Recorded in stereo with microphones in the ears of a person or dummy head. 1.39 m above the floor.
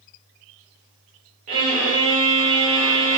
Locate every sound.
1.5 s a violin: 40° right (ahead or behind), 1.1 m